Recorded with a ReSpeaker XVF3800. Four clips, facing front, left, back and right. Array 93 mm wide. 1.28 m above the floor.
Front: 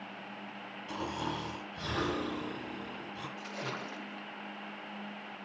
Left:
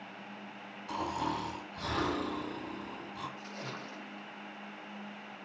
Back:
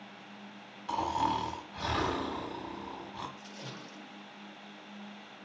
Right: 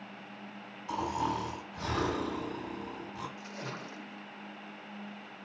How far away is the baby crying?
I don't hear a baby crying.